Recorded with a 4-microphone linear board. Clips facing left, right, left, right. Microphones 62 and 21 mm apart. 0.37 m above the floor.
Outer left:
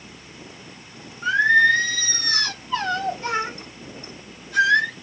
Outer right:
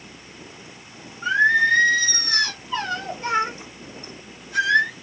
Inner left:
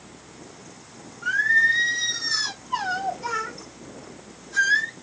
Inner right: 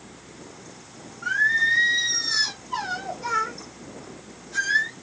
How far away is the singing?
About 2 m.